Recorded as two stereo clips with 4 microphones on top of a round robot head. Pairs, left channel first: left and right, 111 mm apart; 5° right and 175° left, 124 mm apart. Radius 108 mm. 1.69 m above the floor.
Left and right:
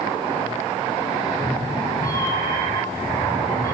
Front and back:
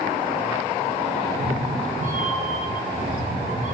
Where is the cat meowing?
155° left, 7.5 m.